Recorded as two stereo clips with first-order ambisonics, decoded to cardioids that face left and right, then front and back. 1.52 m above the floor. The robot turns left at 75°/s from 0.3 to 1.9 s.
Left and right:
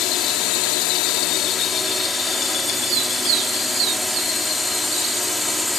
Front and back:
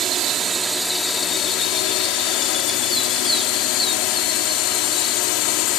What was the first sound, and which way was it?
A drone, 130° left.